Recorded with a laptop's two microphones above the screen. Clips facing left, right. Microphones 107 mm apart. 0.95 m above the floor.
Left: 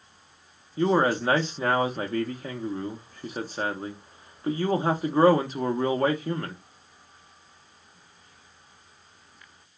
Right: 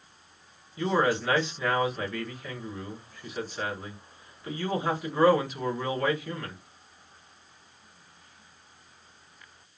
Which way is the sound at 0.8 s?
35° left (ahead or behind).